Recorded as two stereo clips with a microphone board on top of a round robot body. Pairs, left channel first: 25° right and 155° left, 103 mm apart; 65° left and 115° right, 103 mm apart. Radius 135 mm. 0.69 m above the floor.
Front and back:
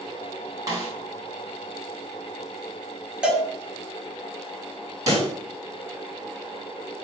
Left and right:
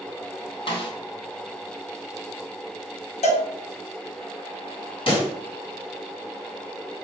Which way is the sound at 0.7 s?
105° left.